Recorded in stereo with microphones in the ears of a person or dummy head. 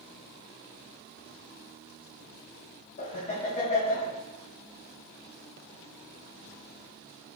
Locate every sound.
3.0 s laughter: 35° left (ahead or behind), 1.8 m